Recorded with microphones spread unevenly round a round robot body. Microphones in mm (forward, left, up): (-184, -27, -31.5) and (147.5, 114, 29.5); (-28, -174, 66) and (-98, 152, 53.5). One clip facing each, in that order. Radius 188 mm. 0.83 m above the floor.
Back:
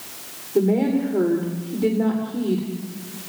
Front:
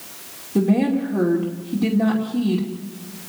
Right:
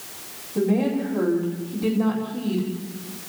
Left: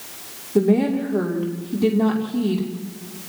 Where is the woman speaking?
80° left, 2.5 m.